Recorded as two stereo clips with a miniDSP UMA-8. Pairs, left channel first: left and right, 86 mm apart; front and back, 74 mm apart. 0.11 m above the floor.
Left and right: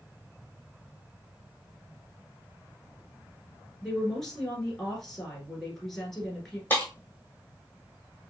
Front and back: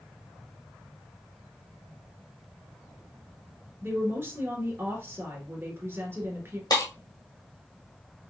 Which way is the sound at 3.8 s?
175° left.